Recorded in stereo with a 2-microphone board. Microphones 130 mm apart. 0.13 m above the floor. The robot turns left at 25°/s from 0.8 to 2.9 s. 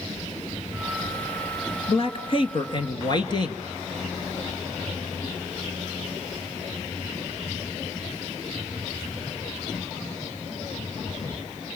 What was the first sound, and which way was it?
A man speaking, 45° left (ahead or behind).